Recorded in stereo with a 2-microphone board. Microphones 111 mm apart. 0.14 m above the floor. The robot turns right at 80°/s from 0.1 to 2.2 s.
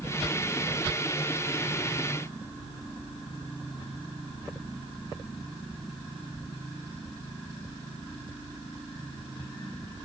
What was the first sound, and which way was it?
Only background noise.